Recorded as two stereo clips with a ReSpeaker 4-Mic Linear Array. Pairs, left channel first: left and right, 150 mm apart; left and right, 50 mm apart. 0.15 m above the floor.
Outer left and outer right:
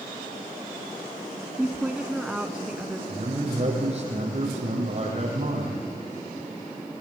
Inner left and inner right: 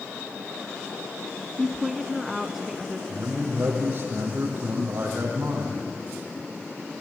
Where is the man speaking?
45° right (ahead or behind), 7 m.